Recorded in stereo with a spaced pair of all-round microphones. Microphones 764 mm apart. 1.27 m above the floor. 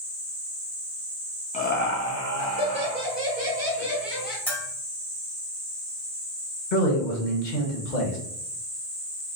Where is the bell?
Centre (ahead or behind), 1.2 m.